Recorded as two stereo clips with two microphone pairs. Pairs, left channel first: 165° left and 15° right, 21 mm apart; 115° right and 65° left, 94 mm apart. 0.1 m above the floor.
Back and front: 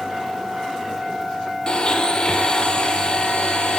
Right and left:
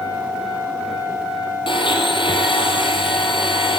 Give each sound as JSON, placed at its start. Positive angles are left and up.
{"t": 1.7, "sound": "a blender", "azimuth_deg": -145, "distance_m": 1.2}